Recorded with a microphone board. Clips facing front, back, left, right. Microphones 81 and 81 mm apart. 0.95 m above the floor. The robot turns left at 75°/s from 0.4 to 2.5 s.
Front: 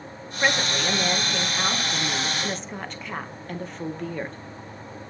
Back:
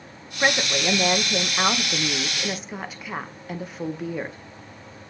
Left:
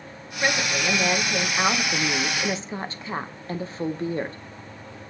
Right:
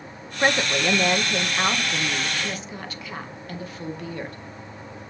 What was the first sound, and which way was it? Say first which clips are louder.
A woman speaking: back 1 dB, right 3 dB; 100° right.